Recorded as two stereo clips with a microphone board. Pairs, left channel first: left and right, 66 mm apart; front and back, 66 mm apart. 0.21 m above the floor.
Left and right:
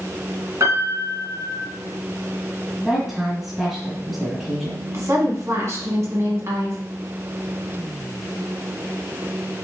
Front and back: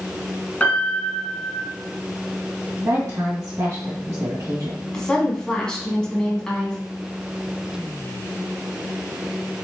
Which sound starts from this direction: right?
A woman speaking, at 4.9 s.